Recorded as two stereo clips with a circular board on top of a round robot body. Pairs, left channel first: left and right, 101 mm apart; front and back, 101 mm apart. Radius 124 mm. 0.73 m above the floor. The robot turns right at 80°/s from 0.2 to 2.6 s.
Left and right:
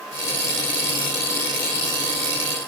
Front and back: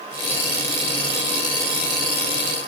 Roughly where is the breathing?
I don't hear breathing.